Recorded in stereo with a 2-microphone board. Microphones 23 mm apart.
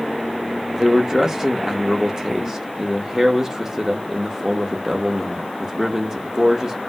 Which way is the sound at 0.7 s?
20° right (ahead or behind).